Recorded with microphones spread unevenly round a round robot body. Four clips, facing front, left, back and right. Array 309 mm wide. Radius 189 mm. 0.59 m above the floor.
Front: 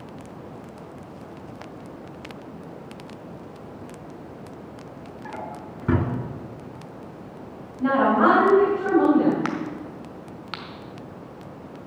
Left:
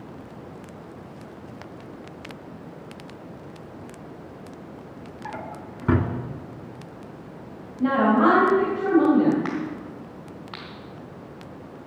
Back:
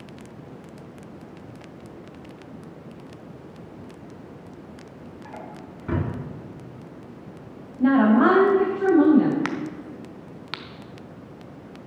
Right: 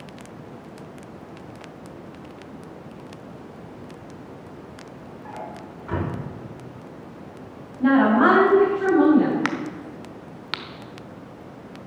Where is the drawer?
55° left, 2.5 m.